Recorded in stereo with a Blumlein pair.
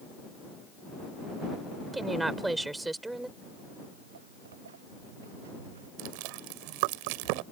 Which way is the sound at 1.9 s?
10° right.